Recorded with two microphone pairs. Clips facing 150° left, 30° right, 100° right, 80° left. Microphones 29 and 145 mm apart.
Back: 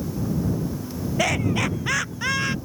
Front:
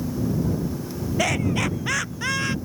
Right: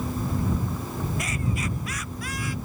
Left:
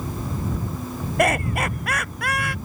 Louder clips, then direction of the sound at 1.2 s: Back 1 dB, left 9 dB; 65° left.